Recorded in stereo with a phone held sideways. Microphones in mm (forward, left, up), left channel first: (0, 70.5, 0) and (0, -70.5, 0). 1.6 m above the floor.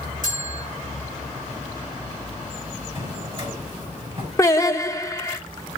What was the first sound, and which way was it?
A bell, 80° right.